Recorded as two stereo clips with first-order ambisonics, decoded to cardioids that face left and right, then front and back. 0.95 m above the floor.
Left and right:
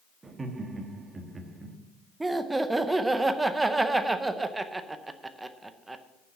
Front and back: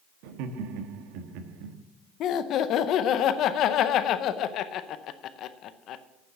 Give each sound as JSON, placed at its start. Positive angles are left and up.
{"t": 0.2, "sound": "laughter", "azimuth_deg": -165, "distance_m": 1.3}
{"t": 2.2, "sound": "laughter", "azimuth_deg": -15, "distance_m": 0.6}